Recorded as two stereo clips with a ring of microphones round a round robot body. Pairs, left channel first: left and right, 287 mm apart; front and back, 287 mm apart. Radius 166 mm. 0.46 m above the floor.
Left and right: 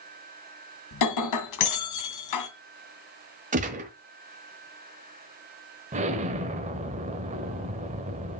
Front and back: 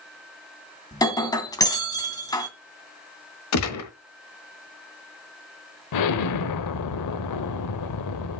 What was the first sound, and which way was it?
Breaking glass, 75° left.